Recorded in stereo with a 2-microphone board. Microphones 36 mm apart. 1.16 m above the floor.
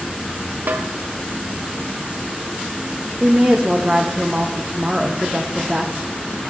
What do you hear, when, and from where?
0.7 s a snare drum: 55° right (ahead or behind), 0.5 m
3.2 s a woman speaking: 30° right (ahead or behind), 0.6 m